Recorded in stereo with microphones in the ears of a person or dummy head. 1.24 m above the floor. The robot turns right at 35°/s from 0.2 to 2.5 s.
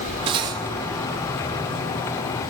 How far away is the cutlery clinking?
About 1.0 m.